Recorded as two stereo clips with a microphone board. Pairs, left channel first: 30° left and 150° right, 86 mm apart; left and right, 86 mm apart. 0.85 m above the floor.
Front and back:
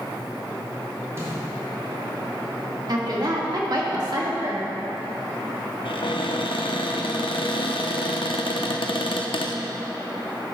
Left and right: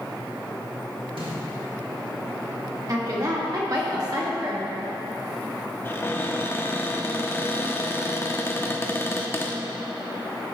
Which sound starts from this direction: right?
A snare drum, at 1.2 s.